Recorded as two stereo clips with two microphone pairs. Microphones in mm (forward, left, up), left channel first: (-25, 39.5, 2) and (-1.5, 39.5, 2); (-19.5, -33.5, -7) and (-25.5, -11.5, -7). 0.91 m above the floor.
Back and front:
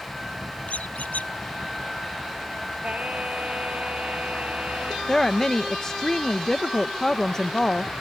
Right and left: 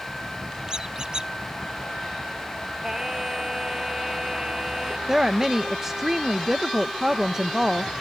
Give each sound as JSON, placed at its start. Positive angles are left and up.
{"t": 0.7, "sound": "a squeak", "azimuth_deg": 165}
{"t": 2.8, "sound": "singing", "azimuth_deg": 35}
{"t": 5.1, "sound": "a woman speaking", "azimuth_deg": 150}